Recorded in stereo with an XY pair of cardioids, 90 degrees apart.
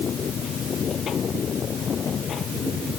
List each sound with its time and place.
0.0 s a machine running: 60° left